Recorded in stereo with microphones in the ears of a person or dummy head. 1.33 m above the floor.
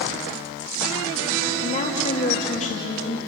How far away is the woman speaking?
About 3 m.